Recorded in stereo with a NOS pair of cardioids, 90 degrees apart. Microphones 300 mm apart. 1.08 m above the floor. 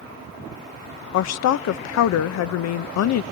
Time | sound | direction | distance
1.1 | a woman speaking | 65° left | 0.7 m